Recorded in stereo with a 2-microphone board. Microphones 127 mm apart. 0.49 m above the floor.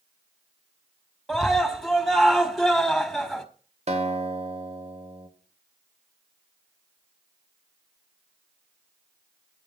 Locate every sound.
1.3 s a scream: centre (ahead or behind), 1.7 m
3.9 s a guitar: 55° right (ahead or behind), 2.5 m